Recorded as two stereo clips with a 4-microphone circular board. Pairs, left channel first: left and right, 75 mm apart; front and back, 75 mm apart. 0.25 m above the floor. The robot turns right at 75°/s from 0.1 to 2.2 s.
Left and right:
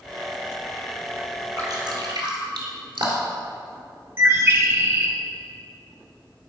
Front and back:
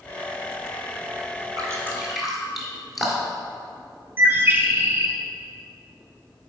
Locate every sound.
1.6 s dripping: 140° right, 1.7 m; by 3.4 s 90° right, 1.7 m
4.2 s a bird: 130° right, 0.9 m